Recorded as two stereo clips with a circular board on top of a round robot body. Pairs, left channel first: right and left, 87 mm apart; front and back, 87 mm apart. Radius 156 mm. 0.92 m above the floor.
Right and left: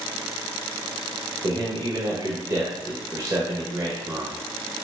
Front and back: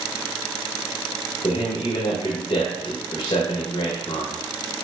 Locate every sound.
1.4 s a man speaking: 35° left, 0.8 m